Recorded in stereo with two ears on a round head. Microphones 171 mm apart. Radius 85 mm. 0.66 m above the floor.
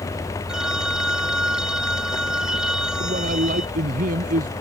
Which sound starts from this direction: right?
A man speaking, at 3.0 s.